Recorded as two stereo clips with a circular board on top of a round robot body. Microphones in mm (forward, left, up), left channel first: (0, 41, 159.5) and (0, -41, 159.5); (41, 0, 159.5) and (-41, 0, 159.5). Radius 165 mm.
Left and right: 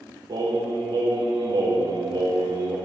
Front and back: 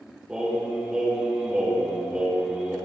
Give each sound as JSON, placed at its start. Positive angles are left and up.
{"t": 0.3, "sound": "singing", "azimuth_deg": -100, "distance_m": 3.5}